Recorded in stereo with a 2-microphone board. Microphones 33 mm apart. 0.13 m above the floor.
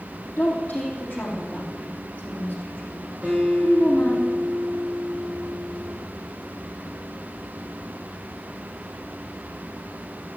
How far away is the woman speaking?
About 3.5 m.